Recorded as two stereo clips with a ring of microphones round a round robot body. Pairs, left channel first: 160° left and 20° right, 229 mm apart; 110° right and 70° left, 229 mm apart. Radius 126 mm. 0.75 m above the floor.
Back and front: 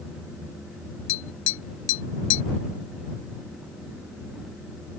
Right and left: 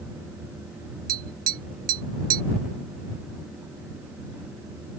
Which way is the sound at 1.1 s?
120° left.